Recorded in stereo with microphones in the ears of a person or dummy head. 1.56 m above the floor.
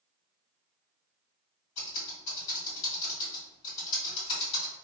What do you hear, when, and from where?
1.8 s typing on a keyboard: 45° left (ahead or behind), 1.4 m